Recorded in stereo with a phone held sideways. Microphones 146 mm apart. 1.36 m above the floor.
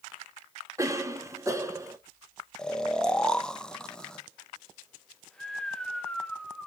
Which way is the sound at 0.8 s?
20° right (ahead or behind).